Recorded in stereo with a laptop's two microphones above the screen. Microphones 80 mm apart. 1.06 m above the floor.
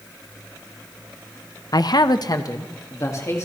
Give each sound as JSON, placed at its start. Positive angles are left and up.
{"t": 1.7, "sound": "a man speaking", "side_deg": 50, "distance_m": 0.7}